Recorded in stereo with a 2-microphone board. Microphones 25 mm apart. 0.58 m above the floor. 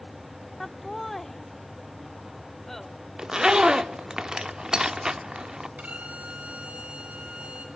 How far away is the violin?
About 3 m.